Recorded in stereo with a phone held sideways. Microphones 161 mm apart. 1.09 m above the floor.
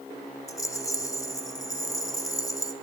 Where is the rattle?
20° left (ahead or behind), 1.6 m.